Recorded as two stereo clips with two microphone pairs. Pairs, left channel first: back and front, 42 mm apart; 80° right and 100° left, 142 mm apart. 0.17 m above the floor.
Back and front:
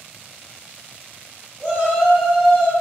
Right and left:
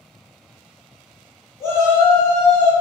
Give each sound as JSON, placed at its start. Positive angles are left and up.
{"t": 1.6, "sound": "a shout", "azimuth_deg": -50, "distance_m": 1.5}